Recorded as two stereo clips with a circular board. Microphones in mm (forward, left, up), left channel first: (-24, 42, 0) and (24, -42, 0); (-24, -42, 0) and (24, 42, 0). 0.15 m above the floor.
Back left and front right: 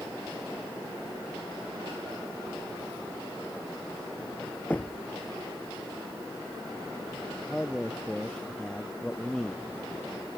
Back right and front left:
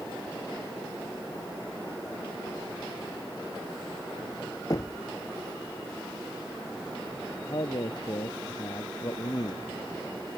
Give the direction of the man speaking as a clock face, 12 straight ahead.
5 o'clock.